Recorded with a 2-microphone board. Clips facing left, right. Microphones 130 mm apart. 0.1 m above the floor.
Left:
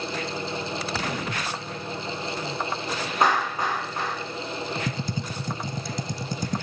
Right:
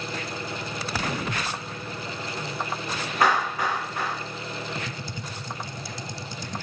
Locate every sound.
3.2 s a clap: 20° left (ahead or behind), 5.5 m
4.9 s typing on a keyboard: 50° left (ahead or behind), 0.6 m